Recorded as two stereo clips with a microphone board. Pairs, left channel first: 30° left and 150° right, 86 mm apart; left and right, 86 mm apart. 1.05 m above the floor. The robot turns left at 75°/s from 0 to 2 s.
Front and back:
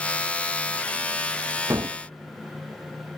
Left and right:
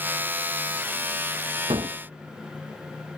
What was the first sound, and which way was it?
A gunshot, 95° right.